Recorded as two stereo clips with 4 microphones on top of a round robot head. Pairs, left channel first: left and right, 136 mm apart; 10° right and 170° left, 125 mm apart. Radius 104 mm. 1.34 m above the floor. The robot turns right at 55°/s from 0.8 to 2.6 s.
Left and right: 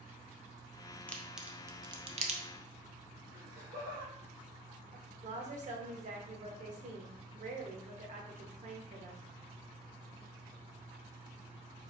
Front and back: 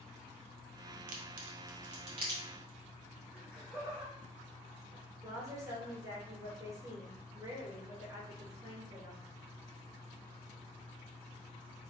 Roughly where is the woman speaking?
Behind right.